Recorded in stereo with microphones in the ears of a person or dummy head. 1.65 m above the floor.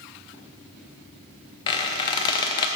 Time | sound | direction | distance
1.7 | a squeak | 25° left (ahead or behind) | 0.5 m